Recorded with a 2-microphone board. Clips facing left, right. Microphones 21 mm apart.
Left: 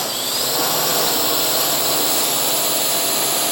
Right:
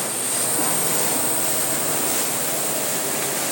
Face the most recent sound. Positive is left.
turn(degrees=60)  # may be behind; listen again after turning